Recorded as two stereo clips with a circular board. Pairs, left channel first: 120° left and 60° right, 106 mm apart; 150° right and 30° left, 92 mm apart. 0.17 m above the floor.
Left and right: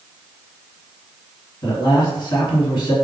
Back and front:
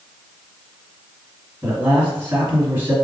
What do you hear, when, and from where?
1.6 s a man speaking: 95° left, 1.9 m